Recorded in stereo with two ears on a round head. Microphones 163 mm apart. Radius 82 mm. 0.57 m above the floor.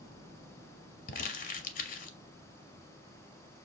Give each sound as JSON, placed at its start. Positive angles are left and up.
{"t": 1.1, "sound": "crumpling", "side_deg": 50, "distance_m": 0.7}